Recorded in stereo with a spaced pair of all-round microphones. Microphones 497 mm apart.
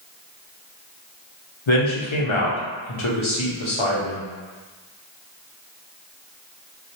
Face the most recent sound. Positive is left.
turn(degrees=70)  # may be behind; listen again after turning